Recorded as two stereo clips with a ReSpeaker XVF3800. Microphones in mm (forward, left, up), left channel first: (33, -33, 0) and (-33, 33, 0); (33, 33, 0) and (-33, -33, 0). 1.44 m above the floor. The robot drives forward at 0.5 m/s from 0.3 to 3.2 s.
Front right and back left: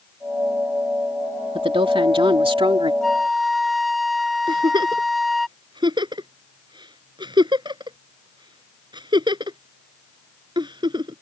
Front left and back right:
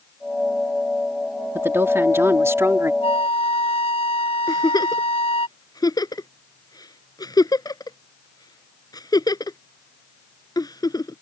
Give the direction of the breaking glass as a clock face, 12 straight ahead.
I don't hear breaking glass.